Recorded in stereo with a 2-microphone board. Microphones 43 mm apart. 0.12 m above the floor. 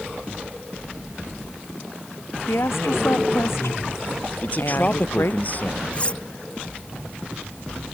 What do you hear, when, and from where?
2.5 s a woman speaking: 80° left
4.4 s a man speaking: 40° left (ahead or behind)
5.9 s cutlery clinking: 30° left (ahead or behind)